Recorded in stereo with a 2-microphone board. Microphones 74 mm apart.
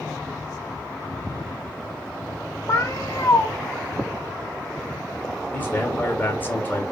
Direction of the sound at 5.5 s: 20° left (ahead or behind).